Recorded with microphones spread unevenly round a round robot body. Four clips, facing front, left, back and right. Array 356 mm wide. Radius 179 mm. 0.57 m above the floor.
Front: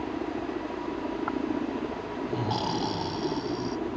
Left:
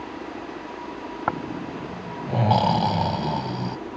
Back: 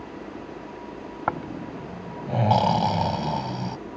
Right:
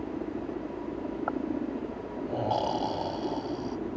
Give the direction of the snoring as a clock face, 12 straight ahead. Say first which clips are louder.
Left 4 dB, back 3 dB; 8 o'clock.